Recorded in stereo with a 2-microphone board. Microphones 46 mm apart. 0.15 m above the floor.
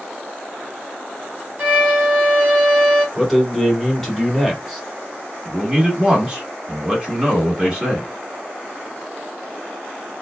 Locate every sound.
1.6 s a violin: 35° right (ahead or behind), 1.1 m
3.1 s a man speaking: centre (ahead or behind), 1.2 m
5.5 s a man speaking: 20° right (ahead or behind), 1.3 m